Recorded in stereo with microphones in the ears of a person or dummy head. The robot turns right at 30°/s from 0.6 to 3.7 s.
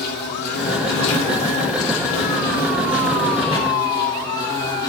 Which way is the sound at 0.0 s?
65° left.